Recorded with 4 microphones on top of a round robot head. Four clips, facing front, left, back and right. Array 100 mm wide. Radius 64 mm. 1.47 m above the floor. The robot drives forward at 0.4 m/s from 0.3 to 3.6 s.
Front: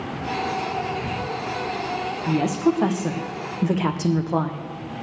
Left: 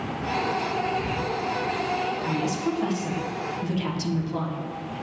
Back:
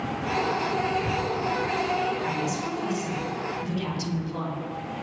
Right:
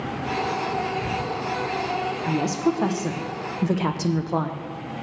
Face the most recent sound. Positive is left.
turn(degrees=-40)